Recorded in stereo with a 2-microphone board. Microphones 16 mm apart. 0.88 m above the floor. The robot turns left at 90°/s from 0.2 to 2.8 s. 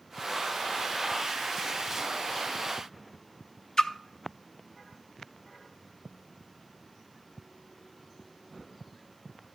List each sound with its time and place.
3.8 s a splash: 50° left (ahead or behind), 0.5 m